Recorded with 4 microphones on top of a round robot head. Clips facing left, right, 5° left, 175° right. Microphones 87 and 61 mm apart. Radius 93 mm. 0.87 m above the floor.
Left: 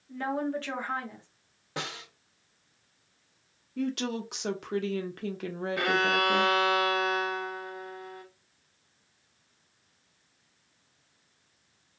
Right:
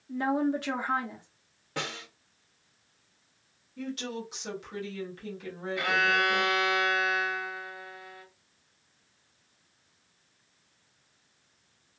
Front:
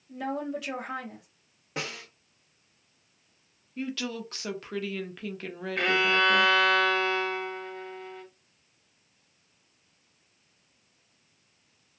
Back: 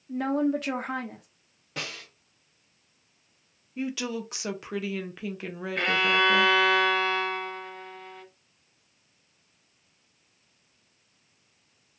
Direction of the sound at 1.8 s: 40° left.